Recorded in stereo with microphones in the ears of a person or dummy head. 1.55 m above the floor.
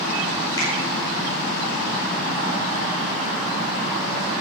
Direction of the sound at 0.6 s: 15° left (ahead or behind).